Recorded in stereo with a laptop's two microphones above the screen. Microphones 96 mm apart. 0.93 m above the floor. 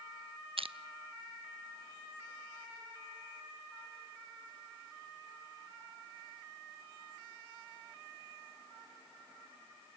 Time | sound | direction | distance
0.6 | crushing | 70° right (ahead or behind) | 0.7 m